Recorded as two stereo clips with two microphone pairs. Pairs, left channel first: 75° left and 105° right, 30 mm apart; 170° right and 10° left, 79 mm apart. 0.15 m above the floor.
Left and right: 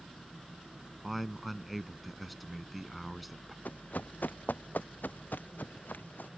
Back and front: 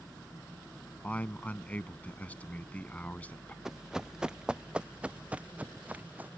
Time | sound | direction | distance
1.0 | a man speaking | 170° left | ?
3.6 | running footsteps | 95° left | ?